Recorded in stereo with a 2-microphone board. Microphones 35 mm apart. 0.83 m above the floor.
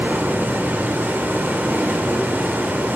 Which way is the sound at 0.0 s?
75° right (ahead or behind).